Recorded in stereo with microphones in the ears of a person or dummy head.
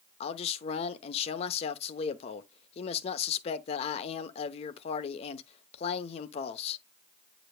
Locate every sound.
0.2 s a man speaking: 40° left (ahead or behind), 0.8 m